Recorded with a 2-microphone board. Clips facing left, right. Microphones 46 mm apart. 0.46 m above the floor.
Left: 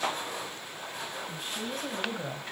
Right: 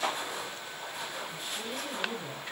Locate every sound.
1.3 s a woman speaking: 45° left (ahead or behind), 4 m; by 2.4 s 40° left (ahead or behind), 3 m